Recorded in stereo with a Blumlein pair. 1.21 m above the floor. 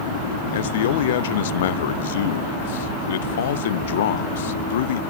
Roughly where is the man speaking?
Ahead left.